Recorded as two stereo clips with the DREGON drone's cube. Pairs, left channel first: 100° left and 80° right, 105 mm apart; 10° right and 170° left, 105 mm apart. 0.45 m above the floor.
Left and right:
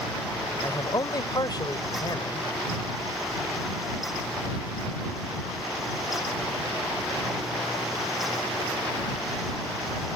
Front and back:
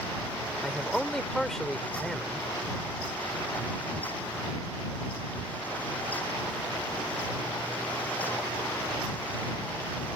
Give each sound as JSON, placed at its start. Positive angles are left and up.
{"t": 0.6, "sound": "a man speaking", "azimuth_deg": 75}